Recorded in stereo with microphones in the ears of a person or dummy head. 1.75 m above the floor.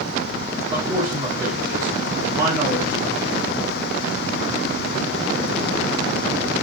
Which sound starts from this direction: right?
A man speaking, at 0.7 s.